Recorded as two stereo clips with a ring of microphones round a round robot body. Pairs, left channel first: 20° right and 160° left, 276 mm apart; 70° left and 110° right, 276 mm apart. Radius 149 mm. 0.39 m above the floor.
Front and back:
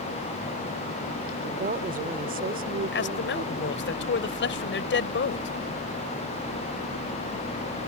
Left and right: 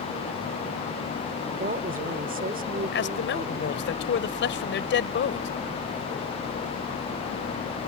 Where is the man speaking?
20° left.